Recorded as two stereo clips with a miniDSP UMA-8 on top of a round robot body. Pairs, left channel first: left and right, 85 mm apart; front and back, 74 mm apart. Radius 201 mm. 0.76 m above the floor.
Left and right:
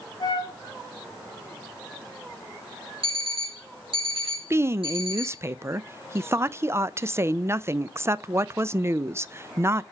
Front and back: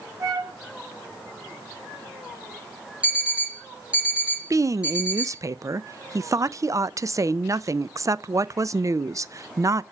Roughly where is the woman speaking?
Behind right.